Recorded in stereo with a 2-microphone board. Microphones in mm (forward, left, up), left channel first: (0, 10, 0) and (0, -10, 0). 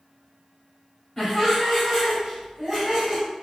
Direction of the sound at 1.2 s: 5° left (ahead or behind).